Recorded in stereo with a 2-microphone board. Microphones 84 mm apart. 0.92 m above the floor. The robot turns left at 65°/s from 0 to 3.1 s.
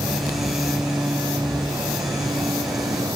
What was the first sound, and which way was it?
Only background noise.